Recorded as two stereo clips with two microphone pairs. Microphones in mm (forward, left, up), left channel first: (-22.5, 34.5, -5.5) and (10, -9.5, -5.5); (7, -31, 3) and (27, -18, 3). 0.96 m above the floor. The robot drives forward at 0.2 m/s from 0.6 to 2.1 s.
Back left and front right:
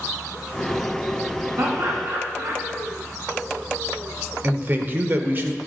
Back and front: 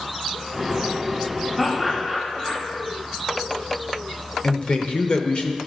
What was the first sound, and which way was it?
Laughter, 70° right.